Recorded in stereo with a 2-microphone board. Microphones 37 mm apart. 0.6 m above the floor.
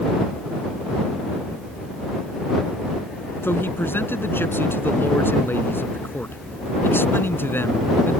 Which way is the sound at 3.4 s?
80° left.